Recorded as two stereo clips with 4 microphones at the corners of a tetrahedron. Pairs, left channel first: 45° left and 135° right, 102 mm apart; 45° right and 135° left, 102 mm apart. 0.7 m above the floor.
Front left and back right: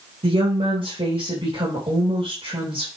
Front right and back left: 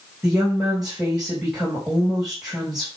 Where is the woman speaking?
140° right, 4 m.